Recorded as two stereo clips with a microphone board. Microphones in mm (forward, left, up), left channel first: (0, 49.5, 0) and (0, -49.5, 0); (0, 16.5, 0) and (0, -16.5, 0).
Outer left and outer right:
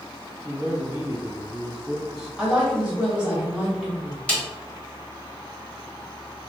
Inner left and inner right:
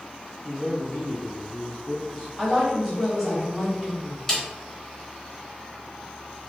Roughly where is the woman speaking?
Centre.